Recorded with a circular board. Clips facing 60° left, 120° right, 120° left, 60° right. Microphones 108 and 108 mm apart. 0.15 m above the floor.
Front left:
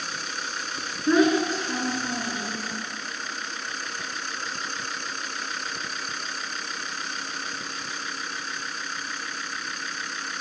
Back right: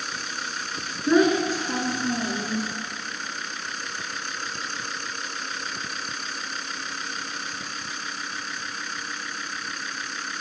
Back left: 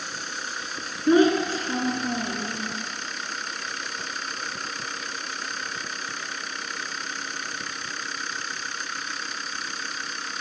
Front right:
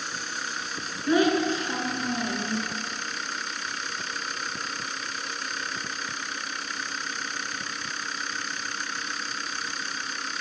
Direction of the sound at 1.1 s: 155° left.